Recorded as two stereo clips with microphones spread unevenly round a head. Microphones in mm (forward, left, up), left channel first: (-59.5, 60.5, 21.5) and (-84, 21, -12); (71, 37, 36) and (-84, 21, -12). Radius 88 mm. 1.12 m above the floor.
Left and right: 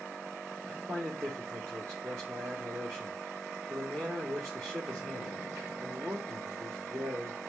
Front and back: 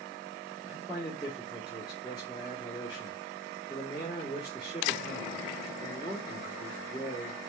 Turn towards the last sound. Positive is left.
turn(degrees=-65)